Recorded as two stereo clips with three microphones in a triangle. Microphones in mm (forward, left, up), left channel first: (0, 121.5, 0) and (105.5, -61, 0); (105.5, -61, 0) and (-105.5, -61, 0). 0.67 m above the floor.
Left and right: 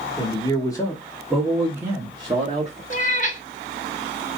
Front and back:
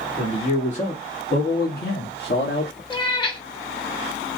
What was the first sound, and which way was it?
A man speaking, 55° left.